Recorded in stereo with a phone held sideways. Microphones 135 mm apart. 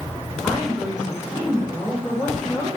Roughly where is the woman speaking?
Centre.